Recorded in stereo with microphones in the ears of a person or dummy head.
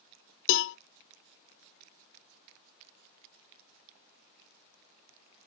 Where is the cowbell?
75° left (ahead or behind), 0.5 m.